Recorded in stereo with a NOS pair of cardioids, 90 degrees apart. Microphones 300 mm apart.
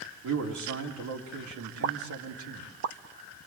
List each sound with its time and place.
0.2 s a man speaking: 70° right, 3.5 m
1.8 s a pop: 50° right, 1.1 m